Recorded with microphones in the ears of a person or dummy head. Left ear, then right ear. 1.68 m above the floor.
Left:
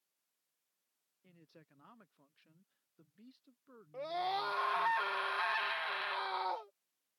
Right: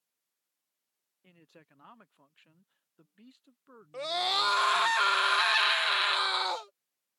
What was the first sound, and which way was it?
A man speaking, 35° right (ahead or behind).